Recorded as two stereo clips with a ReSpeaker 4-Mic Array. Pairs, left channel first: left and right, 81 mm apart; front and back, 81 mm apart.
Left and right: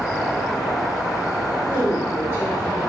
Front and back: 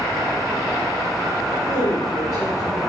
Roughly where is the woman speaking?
Ahead.